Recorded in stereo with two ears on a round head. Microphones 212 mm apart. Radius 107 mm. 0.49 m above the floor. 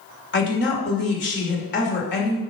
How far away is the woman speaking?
About 2.0 m.